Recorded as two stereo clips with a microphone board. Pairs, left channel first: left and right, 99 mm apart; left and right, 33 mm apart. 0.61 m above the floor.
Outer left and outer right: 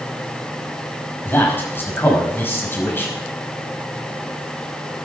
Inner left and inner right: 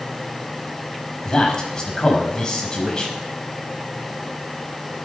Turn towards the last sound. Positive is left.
turn(degrees=20)  # may be behind; listen again after turning